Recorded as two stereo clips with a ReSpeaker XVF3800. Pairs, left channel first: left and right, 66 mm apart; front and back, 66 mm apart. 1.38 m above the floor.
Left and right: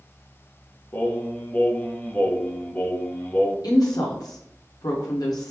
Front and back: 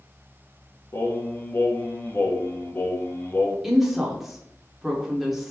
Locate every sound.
0.9 s singing: 35° left, 0.9 m
3.6 s a woman speaking: 95° left, 1.0 m